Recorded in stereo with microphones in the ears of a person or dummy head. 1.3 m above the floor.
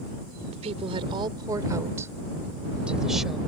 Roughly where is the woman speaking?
Right.